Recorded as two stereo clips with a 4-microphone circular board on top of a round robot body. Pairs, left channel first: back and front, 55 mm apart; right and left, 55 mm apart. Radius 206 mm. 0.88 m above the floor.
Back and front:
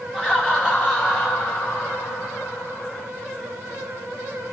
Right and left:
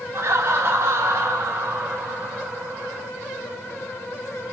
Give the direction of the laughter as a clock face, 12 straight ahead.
9 o'clock.